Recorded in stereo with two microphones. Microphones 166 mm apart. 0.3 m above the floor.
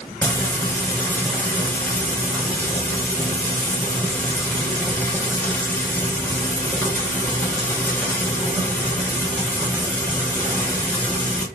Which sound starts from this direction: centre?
Frying, at 0.2 s.